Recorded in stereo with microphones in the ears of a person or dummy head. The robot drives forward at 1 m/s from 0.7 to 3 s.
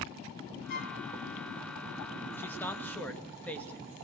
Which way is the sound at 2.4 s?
10° left (ahead or behind).